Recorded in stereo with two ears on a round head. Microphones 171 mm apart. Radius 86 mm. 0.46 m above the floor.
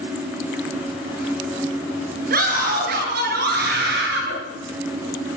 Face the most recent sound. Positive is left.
turn(degrees=-65)  # may be behind; listen again after turning